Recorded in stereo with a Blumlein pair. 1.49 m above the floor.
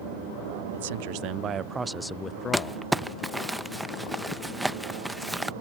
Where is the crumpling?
5° right.